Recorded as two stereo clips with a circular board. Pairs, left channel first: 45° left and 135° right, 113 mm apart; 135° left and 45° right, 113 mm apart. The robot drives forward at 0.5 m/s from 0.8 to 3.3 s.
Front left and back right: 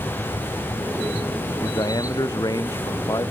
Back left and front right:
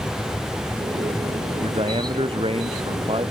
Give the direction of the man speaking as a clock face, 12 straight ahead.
12 o'clock.